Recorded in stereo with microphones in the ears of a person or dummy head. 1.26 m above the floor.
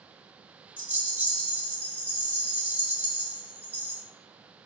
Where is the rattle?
10° right (ahead or behind), 0.8 m.